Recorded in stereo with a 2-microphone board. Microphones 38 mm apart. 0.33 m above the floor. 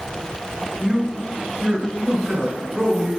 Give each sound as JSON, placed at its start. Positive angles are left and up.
{"t": 0.8, "sound": "a man speaking", "side_deg": 0, "distance_m": 1.5}